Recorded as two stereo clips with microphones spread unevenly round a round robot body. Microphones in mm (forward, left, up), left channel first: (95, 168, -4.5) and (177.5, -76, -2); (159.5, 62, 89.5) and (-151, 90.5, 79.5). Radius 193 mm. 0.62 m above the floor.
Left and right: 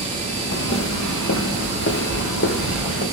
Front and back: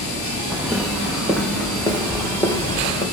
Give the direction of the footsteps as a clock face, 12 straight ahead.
9 o'clock.